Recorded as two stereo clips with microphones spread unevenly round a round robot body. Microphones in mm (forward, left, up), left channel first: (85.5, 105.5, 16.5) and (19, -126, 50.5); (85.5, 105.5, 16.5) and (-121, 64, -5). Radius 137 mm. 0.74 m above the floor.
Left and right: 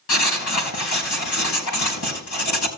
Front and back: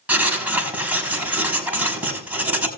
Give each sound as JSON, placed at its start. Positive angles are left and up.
{"t": 0.1, "sound": "writing", "azimuth_deg": 110, "distance_m": 6.5}